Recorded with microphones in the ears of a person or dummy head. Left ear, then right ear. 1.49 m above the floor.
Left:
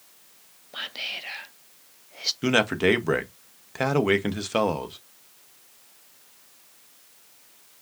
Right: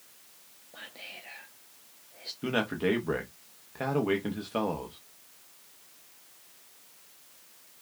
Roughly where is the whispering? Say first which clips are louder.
Left 12 dB; left.